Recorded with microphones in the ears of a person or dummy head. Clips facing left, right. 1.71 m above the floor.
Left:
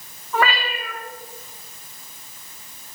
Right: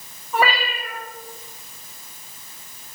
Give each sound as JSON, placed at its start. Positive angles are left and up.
{"t": 0.3, "sound": "a cat meowing", "side_deg": -10, "distance_m": 2.0}